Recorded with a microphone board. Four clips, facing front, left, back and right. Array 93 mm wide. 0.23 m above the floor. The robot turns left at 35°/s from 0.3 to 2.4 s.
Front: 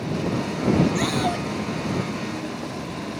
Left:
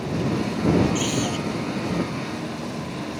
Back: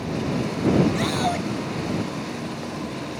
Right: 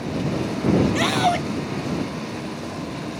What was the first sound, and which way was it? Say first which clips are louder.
A scream: right 5 dB, even; 85° right.